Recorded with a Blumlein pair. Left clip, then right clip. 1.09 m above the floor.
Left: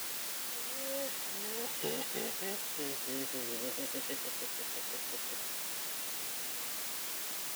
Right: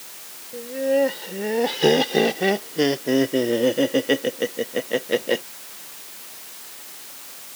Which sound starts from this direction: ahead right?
Laughter, at 0.5 s.